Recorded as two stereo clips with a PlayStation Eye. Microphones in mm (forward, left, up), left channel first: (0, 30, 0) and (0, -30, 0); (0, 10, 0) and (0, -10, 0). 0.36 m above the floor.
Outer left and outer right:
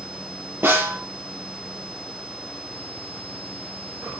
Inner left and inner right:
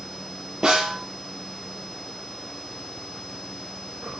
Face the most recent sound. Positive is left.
turn(degrees=-40)  # may be behind; listen again after turning